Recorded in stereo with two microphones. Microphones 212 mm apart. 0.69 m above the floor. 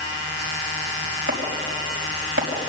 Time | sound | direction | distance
1.3 | chopping | 80° right | 5 m